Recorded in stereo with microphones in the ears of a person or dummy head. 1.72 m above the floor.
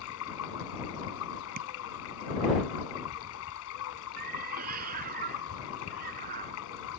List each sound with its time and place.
0.0 s running water: 80° left
1.6 s tapping: 50° right (ahead or behind)
4.2 s a cat meowing: 50° right (ahead or behind)